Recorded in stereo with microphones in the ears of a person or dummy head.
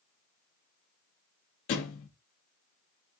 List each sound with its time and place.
1.7 s a thud: 45° left (ahead or behind), 0.6 m